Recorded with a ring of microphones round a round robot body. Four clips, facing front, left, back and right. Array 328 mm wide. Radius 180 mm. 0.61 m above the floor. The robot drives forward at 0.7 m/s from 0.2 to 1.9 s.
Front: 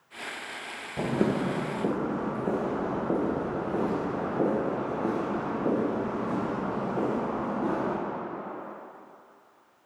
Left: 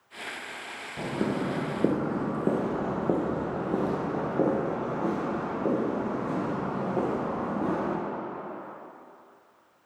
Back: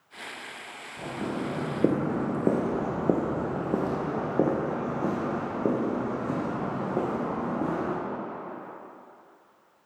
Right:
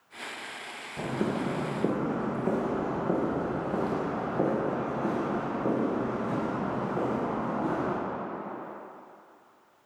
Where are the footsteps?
Straight ahead, 0.9 m; by 7.9 s 160° left, 3.5 m.